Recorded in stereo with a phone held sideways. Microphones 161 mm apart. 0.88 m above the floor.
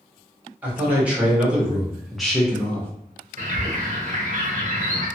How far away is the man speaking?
About 1.2 m.